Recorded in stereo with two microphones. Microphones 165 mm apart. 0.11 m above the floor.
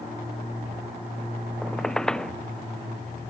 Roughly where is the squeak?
Centre.